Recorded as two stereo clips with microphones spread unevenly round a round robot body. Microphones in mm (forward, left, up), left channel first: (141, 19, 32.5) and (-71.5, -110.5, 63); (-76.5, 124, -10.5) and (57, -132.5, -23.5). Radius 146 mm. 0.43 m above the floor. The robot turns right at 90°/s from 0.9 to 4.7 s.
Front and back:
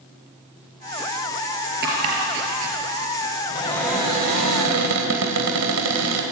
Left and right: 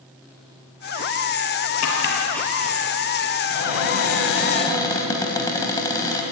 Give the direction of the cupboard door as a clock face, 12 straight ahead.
9 o'clock.